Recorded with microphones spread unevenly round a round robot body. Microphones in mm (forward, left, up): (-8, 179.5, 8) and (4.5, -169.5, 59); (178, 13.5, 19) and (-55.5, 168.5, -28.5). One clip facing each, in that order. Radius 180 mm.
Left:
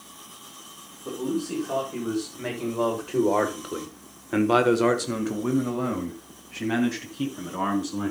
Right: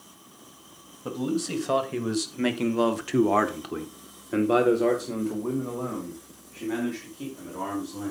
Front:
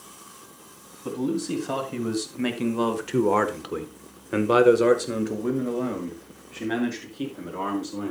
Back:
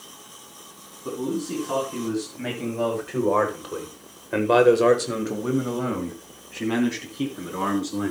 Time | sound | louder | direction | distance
1.1 | a man speaking | even, front 1 dB | 85° right | 3 m